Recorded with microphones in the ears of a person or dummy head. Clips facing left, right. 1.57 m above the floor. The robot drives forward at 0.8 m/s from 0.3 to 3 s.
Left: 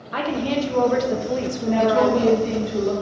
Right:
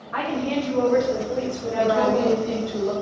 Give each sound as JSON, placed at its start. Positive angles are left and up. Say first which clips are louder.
{"t": 0.1, "sound": "a woman speaking", "louder": "left 2 dB", "side_deg": 40, "distance_m": 1.1}
{"t": 1.8, "sound": "a woman speaking", "louder": "left 2 dB", "side_deg": 60, "distance_m": 0.6}